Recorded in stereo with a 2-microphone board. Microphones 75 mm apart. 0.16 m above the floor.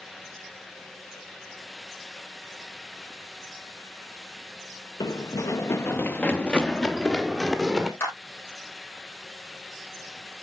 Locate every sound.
5.0 s running footsteps: 65° left (ahead or behind), 1.0 m; by 7.9 s 10° right (ahead or behind), 2.0 m
8.0 s a clap: 35° left (ahead or behind), 4.5 m